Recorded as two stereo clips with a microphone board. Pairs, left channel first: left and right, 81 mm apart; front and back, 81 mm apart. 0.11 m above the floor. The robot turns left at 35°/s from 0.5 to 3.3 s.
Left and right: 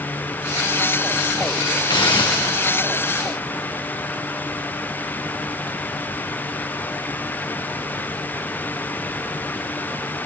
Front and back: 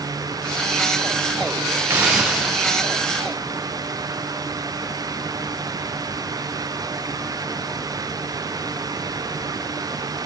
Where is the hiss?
120° left, 2 m; by 2.7 s 90° left, 2 m.